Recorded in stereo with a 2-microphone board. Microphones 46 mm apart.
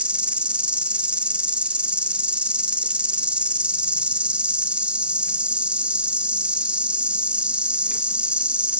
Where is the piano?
I don't hear a piano.